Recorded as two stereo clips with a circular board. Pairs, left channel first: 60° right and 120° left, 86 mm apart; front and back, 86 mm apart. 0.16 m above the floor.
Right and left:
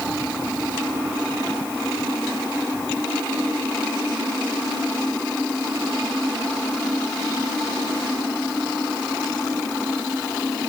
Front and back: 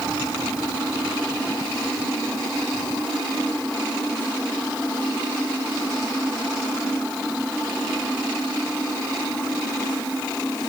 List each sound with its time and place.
Only background noise.